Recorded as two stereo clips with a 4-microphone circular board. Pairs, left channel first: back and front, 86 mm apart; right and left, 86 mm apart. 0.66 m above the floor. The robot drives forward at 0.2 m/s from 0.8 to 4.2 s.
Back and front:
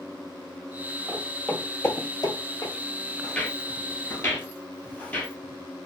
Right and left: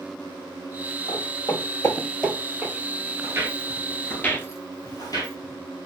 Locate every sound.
1.1 s footsteps: 90° right, 1.5 m; by 2.7 s 150° left, 1.2 m
3.2 s footsteps: 110° left, 0.7 m; by 5.4 s 110° right, 1.1 m